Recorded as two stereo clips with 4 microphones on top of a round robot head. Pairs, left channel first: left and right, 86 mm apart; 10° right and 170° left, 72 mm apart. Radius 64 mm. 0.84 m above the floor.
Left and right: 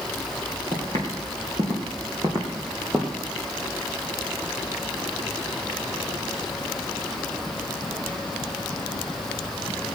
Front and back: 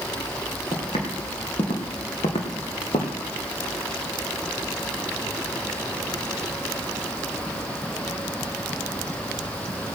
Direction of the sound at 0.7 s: 45° right.